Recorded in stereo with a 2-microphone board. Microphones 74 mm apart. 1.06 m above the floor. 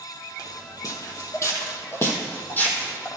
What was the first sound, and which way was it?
Footsteps, 55° left (ahead or behind).